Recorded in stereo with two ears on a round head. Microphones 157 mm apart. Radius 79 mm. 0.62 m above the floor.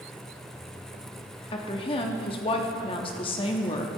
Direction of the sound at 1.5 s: 30° left (ahead or behind).